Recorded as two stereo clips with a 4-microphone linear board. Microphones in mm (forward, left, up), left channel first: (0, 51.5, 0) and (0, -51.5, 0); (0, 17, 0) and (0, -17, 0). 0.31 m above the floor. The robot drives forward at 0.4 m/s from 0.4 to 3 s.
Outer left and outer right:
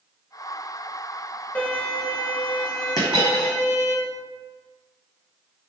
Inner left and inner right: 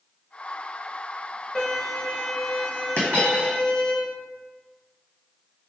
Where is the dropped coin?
40° left (ahead or behind), 1.5 m.